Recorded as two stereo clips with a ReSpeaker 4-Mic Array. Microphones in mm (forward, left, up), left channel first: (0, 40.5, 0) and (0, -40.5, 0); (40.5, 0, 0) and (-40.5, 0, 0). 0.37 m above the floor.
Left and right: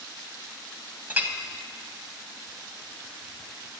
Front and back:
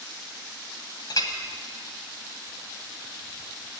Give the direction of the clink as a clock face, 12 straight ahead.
1 o'clock.